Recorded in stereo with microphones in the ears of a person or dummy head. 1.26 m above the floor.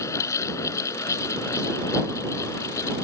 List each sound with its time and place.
0.0 s a fan: 15° left (ahead or behind)